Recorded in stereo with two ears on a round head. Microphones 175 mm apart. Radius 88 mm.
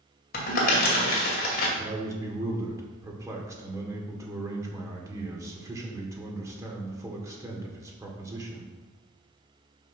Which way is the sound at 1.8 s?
15° right (ahead or behind).